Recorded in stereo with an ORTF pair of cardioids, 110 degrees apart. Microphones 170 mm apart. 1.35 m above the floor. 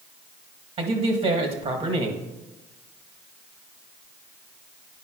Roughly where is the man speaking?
Ahead right.